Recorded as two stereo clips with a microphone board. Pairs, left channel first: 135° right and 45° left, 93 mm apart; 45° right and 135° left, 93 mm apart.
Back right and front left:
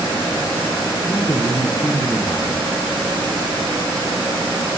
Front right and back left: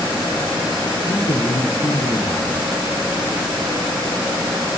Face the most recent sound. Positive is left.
turn(degrees=-85)